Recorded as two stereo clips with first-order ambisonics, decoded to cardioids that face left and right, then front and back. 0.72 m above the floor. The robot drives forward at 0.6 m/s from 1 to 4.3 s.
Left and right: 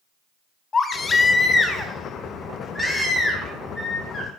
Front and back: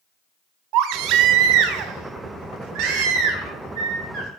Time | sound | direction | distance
0.7 | a baby crying | 160° left | 0.8 m